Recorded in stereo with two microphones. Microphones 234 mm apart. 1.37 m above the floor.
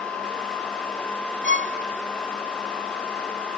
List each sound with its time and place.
1.4 s a violin: 35° right (ahead or behind), 0.8 m